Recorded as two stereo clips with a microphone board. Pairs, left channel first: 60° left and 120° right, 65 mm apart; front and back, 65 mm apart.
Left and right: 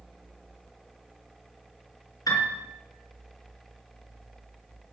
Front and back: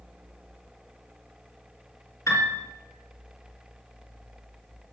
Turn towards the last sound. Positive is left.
turn(degrees=40)